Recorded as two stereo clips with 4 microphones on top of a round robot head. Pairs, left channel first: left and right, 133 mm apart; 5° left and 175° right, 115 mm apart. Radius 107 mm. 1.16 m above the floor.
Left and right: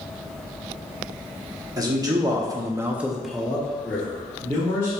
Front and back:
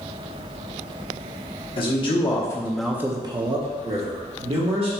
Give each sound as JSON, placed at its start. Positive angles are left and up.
{"t": 1.8, "sound": "a man speaking", "azimuth_deg": -30, "distance_m": 1.1}